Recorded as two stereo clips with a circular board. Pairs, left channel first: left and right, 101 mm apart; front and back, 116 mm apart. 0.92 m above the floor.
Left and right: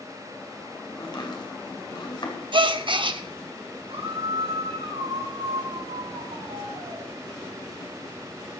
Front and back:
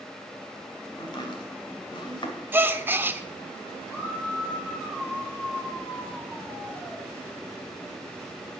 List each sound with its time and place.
1.0 s chopping: 50° left, 2.5 m
2.5 s a gasp: 110° right, 0.8 m
3.9 s a scream: 80° right, 4 m